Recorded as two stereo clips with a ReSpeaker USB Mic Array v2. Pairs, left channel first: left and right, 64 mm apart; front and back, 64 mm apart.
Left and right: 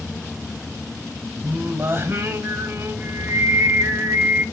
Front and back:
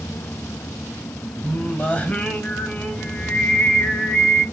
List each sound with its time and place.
1.4 s singing: 60° right, 1.9 m